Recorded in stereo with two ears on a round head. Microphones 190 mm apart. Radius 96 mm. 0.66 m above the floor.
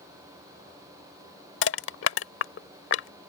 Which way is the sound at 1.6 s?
60° left (ahead or behind).